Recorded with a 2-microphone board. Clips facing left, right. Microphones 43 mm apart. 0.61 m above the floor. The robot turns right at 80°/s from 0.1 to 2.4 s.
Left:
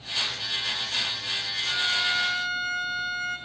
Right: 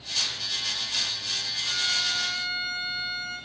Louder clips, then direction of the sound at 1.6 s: Left 3 dB; 20° left.